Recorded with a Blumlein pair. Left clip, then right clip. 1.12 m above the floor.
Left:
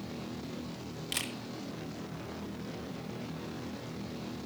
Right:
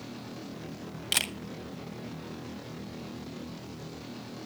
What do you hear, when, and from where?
1.1 s a camera shutter: 25° right, 1.2 m